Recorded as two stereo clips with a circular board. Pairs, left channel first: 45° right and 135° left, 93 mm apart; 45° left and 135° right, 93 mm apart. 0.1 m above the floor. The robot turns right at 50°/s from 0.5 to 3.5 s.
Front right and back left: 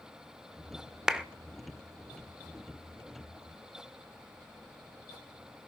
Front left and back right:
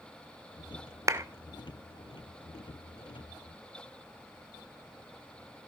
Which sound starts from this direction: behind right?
A clap, at 1.1 s.